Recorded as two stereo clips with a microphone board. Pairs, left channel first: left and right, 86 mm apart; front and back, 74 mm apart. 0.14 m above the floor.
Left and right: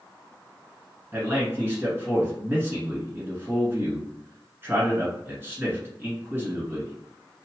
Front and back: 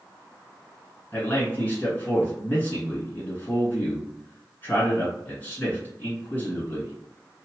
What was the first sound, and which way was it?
A man speaking, 45° right.